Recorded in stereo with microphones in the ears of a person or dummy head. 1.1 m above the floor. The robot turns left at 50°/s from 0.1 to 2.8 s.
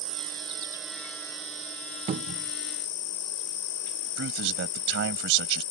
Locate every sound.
0.0 s an insect: 130° right; by 5.7 s 95° left
2.1 s a cupboard door: 30° right (ahead or behind)
4.2 s a man speaking: 70° right (ahead or behind)